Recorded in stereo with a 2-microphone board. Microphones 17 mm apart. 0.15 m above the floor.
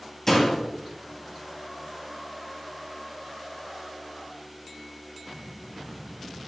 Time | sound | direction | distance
0.3 | a door slam | 25° left (ahead or behind) | 2.5 m